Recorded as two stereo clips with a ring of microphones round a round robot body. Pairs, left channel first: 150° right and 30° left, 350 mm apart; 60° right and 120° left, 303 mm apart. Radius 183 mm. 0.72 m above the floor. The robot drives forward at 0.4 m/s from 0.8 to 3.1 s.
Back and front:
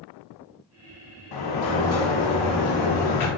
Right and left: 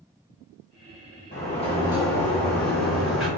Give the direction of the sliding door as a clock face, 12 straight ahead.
4 o'clock.